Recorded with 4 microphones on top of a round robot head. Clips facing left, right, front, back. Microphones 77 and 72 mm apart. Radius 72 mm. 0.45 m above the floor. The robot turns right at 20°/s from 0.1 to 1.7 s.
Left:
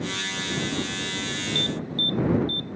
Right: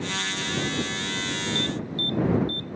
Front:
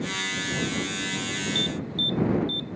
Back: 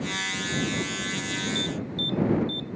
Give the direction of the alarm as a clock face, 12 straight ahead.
11 o'clock.